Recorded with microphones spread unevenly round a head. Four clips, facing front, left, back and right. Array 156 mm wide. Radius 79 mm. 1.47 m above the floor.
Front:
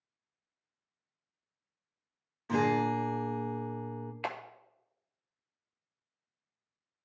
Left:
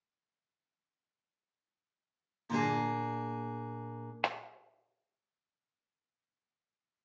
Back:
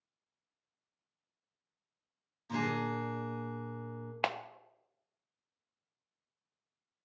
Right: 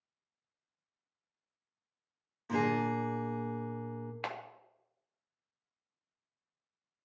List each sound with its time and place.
2.5 s a guitar: 25° right, 1.0 m
4.2 s a clap: 145° left, 0.7 m